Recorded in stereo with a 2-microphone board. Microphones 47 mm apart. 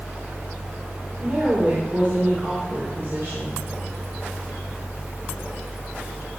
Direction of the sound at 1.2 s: 40° right (ahead or behind).